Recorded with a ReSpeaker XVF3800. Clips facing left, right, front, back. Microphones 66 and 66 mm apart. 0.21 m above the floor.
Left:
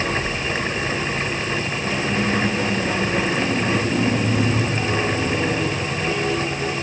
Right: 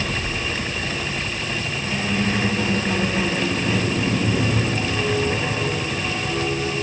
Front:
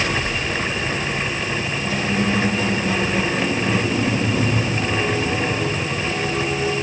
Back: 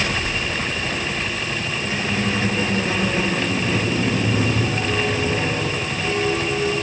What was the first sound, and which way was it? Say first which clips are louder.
A squeak: even, front 2 dB; 125° left.